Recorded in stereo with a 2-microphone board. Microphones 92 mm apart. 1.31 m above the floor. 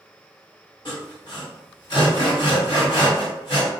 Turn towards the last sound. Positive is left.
turn(degrees=50)  # may be behind; listen again after turning